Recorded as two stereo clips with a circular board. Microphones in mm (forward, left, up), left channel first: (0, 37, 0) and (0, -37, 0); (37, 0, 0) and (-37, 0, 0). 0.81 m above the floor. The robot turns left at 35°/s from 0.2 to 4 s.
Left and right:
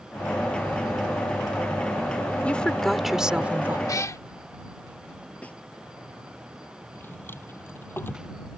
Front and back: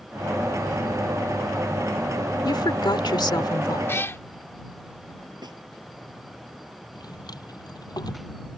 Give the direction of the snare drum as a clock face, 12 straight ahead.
7 o'clock.